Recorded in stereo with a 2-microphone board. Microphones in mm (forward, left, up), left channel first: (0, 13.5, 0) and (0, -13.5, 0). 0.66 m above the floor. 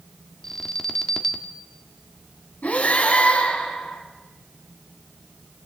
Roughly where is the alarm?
Centre.